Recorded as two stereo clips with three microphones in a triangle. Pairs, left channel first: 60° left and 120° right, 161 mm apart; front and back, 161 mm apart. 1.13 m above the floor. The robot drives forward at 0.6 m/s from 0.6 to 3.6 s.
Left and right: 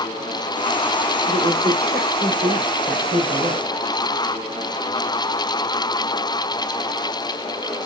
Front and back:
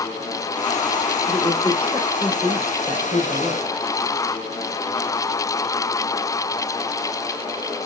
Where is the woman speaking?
115° right, 2.5 m; by 3.8 s 135° right, 3 m.